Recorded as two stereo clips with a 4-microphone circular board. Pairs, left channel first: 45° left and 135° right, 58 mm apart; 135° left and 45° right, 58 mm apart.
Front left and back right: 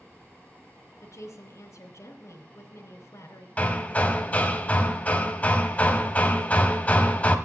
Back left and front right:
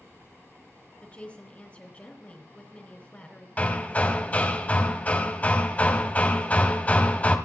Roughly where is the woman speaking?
Left.